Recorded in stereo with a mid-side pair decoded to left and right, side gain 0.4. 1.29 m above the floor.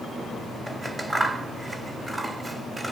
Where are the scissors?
25° right, 1.9 m.